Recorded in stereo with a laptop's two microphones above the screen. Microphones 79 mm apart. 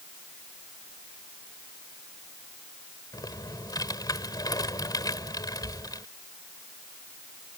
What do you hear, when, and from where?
3.1 s typing on a keyboard: 55° left (ahead or behind)